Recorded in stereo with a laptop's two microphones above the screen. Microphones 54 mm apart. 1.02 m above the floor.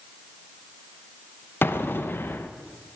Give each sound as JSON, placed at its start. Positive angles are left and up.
{"t": 1.6, "sound": "an explosion", "side_deg": 40, "distance_m": 0.5}